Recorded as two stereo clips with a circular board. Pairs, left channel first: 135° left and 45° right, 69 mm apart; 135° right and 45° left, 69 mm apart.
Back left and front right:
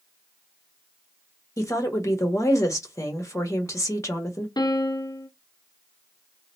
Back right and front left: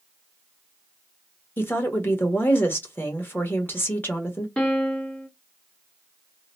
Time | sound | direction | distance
1.6 | a woman speaking | 170° left | 1.2 m
4.6 | a piano | 150° left | 0.8 m